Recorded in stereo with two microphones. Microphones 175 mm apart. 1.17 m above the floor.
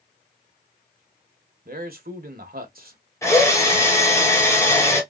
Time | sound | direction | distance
1.6 | a man speaking | 60° right (ahead or behind) | 1.0 m
3.2 | a drill | 20° left (ahead or behind) | 1.4 m